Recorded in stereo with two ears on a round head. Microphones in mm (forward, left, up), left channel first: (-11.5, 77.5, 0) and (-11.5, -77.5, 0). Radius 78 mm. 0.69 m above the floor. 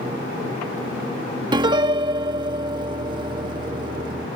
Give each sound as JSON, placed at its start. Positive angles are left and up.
{"t": 1.5, "sound": "a piano", "side_deg": -25}